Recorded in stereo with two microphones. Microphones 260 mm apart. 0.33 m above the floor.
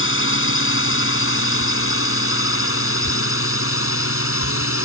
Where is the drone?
55° left (ahead or behind); by 4.8 s 60° left (ahead or behind).